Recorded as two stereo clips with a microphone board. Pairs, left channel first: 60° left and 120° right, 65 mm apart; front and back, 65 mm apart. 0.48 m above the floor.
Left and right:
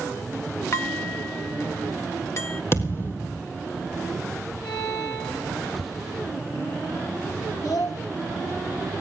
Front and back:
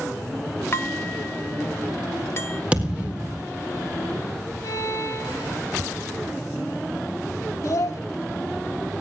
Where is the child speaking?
35° left, 2 m.